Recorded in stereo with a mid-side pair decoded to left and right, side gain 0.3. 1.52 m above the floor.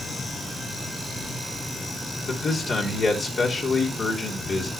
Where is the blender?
No blender in this recording.